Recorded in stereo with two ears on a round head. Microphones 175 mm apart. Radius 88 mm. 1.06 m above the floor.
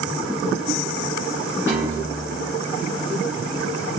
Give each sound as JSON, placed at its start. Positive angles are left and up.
{"t": 1.7, "sound": "a piano", "side_deg": -10, "distance_m": 0.8}